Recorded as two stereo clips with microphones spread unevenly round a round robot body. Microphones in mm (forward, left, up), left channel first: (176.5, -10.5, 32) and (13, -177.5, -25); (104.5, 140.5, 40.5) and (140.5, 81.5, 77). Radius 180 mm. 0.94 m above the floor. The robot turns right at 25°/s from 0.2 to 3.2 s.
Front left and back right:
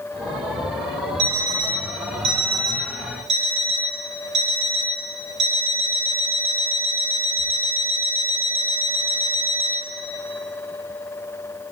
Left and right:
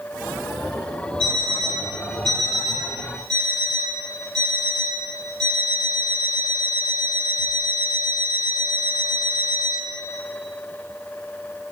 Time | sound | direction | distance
1.2 | an alarm clock | 125° right | 3.5 m